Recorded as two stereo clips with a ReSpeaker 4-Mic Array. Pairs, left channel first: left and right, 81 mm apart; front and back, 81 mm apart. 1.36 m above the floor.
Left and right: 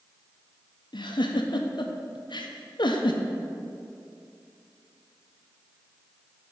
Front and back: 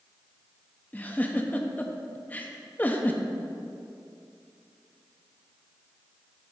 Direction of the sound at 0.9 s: 70° left.